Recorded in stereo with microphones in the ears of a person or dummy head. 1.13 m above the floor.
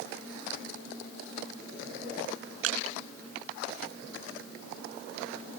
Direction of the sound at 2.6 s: 80° right.